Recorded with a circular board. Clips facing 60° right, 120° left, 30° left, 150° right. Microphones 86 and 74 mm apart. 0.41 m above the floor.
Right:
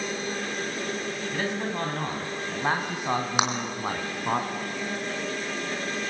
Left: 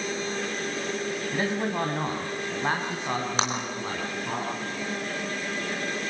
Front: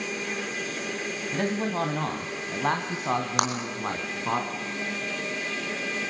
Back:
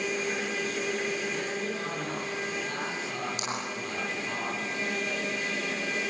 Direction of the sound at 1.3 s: 55° left.